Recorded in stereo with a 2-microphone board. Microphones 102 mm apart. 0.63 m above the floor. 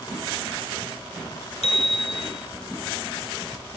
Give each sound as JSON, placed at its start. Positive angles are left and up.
{"t": 1.6, "sound": "a bicycle bell", "side_deg": 80, "distance_m": 5.5}